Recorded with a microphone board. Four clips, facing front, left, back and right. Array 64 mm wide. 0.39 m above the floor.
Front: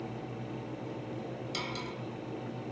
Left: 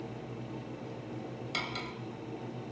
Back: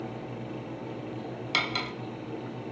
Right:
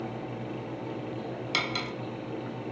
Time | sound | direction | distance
1.5 | cutlery clinking | 155° right | 1.1 m